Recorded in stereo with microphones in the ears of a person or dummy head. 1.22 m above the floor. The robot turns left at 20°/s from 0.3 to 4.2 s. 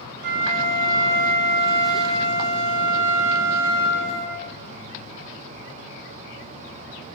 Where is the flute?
115° right, 1.8 m; by 4.4 s 165° left, 1.8 m.